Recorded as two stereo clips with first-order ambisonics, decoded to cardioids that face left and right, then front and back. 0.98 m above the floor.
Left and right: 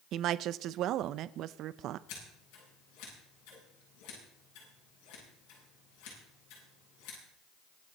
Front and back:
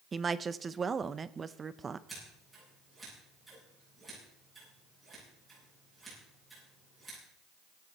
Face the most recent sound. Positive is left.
turn(degrees=100)